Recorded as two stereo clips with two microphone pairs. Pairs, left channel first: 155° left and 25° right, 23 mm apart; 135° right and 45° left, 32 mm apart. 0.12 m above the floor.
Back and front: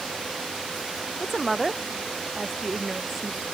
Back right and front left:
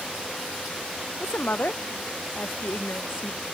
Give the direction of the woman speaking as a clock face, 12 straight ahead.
4 o'clock.